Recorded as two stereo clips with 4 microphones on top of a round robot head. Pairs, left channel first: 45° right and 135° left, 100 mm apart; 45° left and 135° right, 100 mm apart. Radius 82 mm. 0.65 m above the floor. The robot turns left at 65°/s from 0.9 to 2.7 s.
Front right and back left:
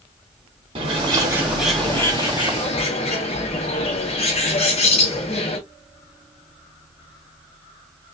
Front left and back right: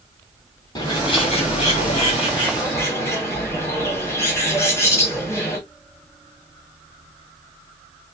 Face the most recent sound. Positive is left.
turn(degrees=-20)